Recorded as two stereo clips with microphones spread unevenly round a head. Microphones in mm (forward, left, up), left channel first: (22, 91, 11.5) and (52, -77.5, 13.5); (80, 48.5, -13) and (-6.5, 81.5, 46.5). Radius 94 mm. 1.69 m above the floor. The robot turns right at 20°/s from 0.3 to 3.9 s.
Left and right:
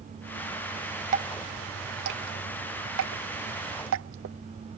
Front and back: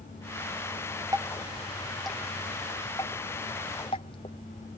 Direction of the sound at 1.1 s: 135° right.